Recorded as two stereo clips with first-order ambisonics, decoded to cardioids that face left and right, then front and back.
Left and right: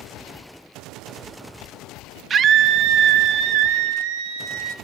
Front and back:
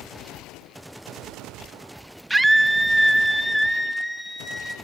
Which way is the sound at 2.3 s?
105° right.